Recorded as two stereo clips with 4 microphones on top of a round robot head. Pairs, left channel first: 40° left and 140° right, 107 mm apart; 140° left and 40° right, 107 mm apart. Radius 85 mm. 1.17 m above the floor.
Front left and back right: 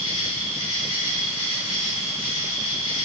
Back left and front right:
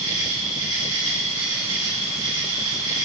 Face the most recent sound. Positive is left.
turn(degrees=15)